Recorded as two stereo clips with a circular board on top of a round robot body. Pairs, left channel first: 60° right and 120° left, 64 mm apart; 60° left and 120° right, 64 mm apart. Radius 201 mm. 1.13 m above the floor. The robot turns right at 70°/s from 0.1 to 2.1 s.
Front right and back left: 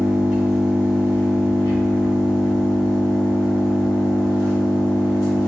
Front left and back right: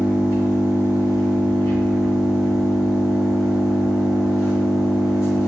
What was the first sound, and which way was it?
An engine running, 170° left.